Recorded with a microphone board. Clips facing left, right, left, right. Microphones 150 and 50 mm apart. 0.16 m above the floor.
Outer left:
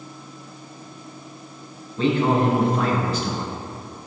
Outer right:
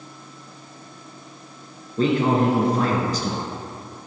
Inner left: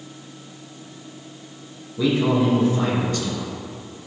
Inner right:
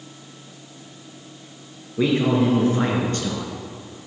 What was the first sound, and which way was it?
A man speaking, 40° right (ahead or behind).